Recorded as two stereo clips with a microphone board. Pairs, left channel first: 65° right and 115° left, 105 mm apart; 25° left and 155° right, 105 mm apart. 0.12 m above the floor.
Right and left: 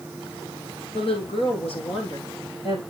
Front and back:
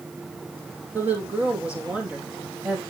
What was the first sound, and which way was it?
A woman speaking, 85° right.